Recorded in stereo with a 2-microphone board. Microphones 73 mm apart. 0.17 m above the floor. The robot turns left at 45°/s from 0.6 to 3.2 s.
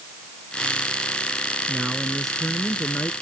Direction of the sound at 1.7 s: 155° right.